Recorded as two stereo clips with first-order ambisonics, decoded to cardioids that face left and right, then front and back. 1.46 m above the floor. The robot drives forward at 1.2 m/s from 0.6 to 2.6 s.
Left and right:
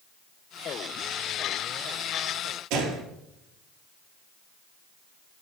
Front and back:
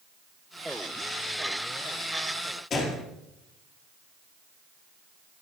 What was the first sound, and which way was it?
A gunshot, 65° right.